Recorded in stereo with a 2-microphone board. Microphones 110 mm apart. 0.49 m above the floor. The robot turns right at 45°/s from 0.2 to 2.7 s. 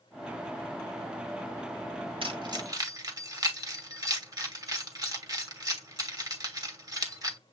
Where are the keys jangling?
55° right (ahead or behind), 1.5 m; by 7.4 s 35° right (ahead or behind), 1.5 m.